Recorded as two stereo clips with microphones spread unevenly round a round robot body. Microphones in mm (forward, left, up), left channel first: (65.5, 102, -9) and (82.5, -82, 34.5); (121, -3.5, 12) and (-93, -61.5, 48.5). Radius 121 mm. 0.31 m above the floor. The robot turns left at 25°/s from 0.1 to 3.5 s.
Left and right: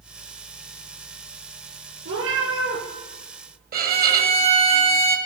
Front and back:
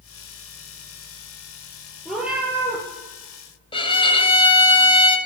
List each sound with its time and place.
2.0 s a cat meowing: 70° right, 4.5 m; by 2.8 s 90° right, 4.5 m
3.7 s a violin: 45° right, 1.1 m